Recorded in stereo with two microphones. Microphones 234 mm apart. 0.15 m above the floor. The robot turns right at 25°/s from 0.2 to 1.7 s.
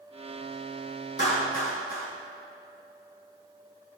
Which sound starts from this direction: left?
A clap, at 1.2 s.